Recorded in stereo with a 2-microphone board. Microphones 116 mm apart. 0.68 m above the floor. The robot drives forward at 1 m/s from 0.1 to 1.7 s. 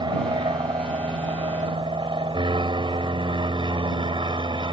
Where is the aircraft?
40° right (ahead or behind); by 4.7 s 45° right (ahead or behind).